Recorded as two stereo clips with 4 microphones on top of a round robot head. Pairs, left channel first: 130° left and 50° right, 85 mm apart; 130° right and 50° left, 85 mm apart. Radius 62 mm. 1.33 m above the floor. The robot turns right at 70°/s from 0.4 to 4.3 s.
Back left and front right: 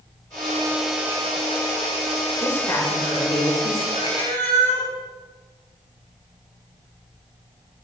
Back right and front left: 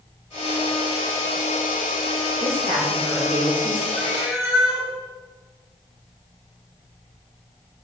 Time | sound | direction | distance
2.4 | a woman speaking | 50° left | 5 m
4.0 | a cat meowing | 90° left | 6 m